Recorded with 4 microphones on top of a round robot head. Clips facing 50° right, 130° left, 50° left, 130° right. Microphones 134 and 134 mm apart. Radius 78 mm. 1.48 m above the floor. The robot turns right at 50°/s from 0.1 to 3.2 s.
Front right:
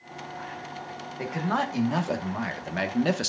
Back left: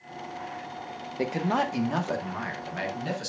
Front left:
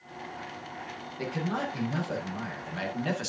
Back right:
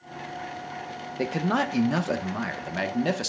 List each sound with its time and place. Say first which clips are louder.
1.2 s a man speaking: back left 2 dB, back right 6 dB; 175° right, 1.3 m; by 3.3 s 75° right, 1.3 m